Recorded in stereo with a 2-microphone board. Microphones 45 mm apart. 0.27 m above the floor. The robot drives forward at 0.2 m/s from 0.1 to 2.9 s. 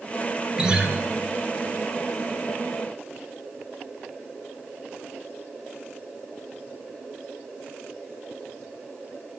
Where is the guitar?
15° right (ahead or behind), 2 m.